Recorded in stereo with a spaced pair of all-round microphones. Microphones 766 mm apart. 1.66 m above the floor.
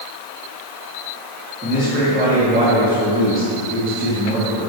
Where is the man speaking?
15° right (ahead or behind), 3 m.